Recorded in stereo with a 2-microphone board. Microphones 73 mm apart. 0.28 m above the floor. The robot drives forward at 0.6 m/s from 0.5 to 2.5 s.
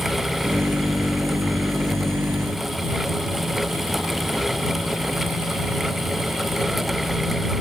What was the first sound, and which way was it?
Only background noise.